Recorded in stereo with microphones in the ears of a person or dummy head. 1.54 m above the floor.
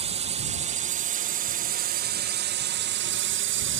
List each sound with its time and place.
0.0 s a drone: 30° right (ahead or behind); by 3.8 s 60° right (ahead or behind)